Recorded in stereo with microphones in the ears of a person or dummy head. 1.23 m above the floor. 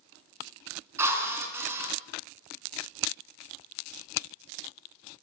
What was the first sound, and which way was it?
A drill, 15° right (ahead or behind).